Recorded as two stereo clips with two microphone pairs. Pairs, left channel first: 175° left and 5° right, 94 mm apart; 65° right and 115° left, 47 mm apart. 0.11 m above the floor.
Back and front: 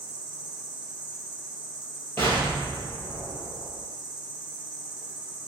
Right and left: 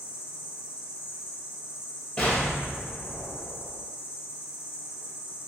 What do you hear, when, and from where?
0.0 s an insect: 80° right, 1.3 m
2.2 s an explosion: 120° right, 1.6 m